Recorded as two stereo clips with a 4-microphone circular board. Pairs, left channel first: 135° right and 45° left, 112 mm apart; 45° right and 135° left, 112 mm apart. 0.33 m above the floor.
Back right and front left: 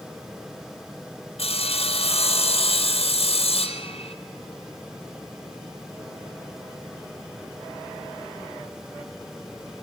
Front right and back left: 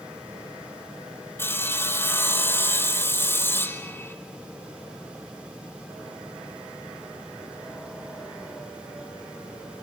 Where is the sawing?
115° right, 1.9 m.